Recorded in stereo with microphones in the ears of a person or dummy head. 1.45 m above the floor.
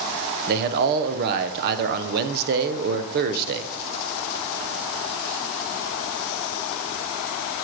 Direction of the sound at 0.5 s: 55° right (ahead or behind).